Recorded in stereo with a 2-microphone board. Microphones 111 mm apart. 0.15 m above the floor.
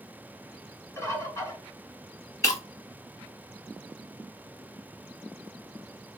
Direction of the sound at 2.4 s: 30° left (ahead or behind).